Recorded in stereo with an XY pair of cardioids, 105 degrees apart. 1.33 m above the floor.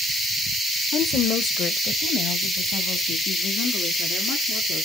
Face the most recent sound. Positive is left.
turn(degrees=70)